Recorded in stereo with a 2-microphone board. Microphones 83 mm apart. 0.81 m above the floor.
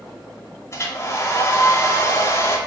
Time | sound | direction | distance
0.7 | a hair dryer | 35° left (ahead or behind) | 2.5 m